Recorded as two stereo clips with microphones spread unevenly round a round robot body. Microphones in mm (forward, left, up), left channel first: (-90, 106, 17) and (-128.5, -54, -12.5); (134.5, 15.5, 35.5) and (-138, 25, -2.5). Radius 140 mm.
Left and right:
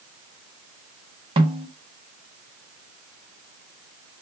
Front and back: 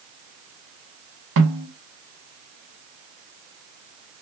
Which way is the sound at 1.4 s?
155° right.